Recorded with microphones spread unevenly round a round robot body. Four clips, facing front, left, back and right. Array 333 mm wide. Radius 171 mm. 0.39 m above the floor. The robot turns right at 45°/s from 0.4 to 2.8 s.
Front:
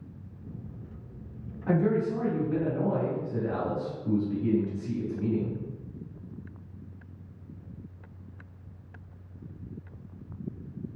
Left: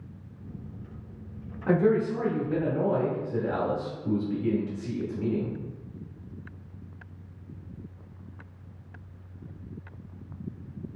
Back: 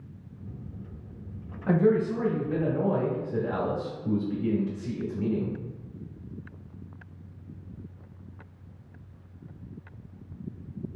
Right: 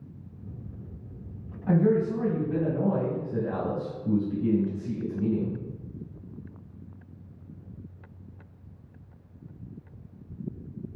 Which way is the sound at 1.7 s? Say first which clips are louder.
Even, back 3 dB; 130° left.